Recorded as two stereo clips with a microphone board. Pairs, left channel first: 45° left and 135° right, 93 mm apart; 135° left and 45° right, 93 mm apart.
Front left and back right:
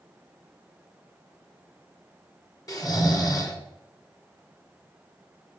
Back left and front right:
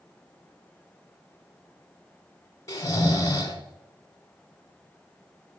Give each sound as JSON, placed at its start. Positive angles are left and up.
{"t": 2.7, "sound": "snoring", "azimuth_deg": 85, "distance_m": 1.8}